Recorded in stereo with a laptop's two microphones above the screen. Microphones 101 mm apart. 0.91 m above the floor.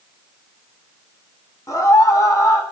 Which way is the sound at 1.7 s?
35° left (ahead or behind).